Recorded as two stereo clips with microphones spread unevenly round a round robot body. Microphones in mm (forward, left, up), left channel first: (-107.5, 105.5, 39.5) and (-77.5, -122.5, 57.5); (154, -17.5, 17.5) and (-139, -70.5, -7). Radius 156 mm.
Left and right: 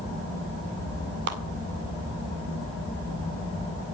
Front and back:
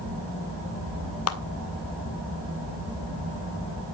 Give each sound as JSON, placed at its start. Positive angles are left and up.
{"t": 1.3, "sound": "a clap", "azimuth_deg": -30, "distance_m": 2.0}